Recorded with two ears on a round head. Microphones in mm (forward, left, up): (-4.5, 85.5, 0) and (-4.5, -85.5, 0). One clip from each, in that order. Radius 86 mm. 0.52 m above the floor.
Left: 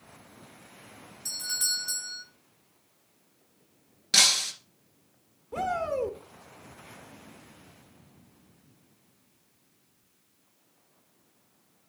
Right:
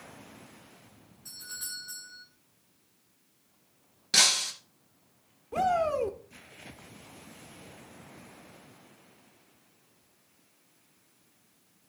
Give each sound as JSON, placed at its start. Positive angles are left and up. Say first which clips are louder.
{"t": 1.2, "sound": "a doorbell", "louder": "left 11 dB", "side_deg": 60, "distance_m": 3.0}
{"t": 4.1, "sound": "breaking glass", "louder": "left 2 dB", "side_deg": 10, "distance_m": 1.7}
{"t": 5.5, "sound": "a shout", "louder": "right 3 dB", "side_deg": -15, "distance_m": 0.9}